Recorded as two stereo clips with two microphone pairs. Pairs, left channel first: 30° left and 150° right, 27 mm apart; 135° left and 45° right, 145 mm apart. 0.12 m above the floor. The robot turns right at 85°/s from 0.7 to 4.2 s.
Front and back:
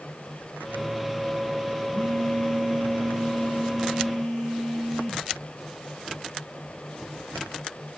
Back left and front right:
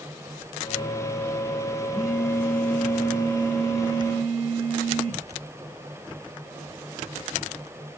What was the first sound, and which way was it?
A phone buzzing, 40° left.